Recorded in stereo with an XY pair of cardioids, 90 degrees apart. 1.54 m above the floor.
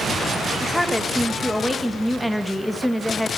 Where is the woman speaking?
5° left, 2.0 m.